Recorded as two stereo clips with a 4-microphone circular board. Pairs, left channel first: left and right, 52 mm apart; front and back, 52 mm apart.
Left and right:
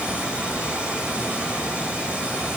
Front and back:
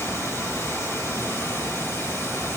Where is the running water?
25° right, 6 m.